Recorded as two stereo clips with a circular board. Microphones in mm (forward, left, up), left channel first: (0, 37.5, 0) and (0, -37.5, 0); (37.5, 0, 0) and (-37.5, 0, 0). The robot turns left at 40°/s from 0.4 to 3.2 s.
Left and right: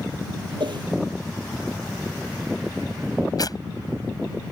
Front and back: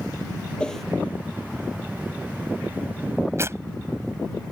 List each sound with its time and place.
0.6 s a whoosh: 80° right; by 0.8 s 90° right
3.4 s tearing paper: 125° left